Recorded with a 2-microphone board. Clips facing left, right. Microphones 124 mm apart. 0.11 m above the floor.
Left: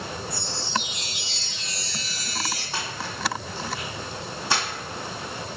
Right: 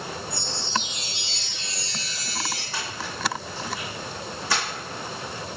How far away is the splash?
About 1.6 m.